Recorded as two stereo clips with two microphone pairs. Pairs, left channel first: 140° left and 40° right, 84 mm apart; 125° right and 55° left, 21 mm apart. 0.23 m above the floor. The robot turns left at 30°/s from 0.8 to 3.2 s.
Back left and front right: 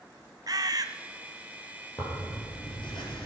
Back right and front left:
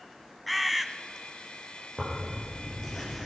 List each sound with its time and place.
0.5 s a bird: 30° right, 0.6 m
2.0 s tearing paper: 175° right, 4 m; by 3.2 s 145° left, 4 m